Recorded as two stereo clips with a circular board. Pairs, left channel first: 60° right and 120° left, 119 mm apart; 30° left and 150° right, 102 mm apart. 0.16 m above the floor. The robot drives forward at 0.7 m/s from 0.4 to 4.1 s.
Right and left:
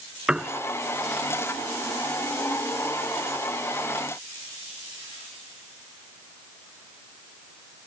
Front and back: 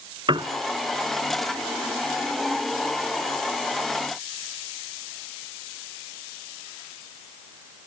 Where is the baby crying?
I don't hear a baby crying.